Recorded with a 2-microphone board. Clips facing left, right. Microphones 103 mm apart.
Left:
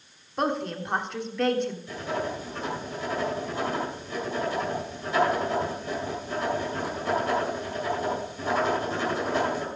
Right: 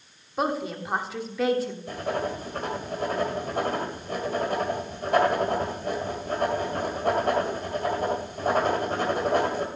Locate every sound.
0.4 s a woman speaking: 5° right (ahead or behind), 1.2 m
1.9 s writing: 55° right (ahead or behind), 2.5 m